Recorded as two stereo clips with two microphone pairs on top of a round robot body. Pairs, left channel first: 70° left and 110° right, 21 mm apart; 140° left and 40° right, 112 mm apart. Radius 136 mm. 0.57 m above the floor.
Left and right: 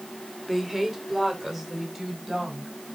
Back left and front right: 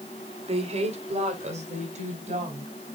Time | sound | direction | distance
0.5 | a woman speaking | 35° right | 1.7 m